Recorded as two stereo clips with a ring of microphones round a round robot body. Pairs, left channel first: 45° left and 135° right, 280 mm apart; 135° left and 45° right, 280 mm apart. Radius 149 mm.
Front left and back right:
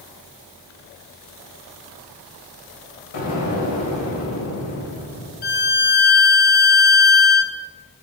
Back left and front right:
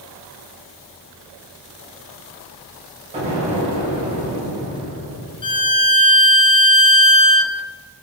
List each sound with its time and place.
3.1 s an explosion: 25° left, 2.5 m
5.4 s a violin: 75° left, 0.6 m